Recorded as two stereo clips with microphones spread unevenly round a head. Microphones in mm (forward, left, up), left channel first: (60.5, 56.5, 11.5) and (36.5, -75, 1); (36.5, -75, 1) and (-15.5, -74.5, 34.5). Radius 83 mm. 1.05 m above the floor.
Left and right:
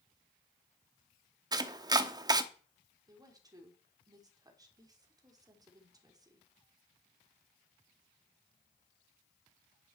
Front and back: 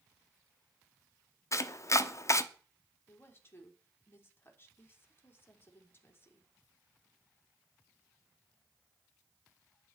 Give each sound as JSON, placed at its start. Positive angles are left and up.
{"t": 1.5, "sound": "chopping", "azimuth_deg": -40, "distance_m": 1.1}
{"t": 3.1, "sound": "a woman speaking", "azimuth_deg": -40, "distance_m": 3.5}